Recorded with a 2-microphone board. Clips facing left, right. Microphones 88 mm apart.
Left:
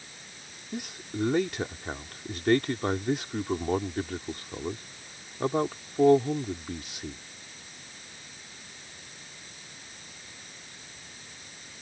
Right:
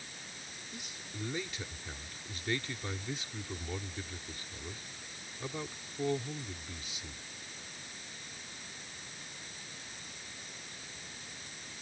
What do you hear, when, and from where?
0.7 s a man speaking: 65° left (ahead or behind)